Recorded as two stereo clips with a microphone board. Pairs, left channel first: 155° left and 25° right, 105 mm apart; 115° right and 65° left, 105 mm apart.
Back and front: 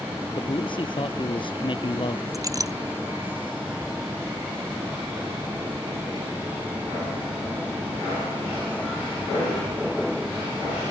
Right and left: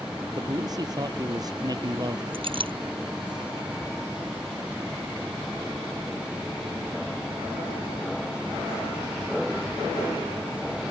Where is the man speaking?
120° left.